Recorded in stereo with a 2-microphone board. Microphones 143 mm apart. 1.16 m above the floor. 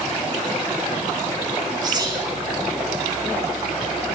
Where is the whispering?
30° right (ahead or behind), 2.5 m.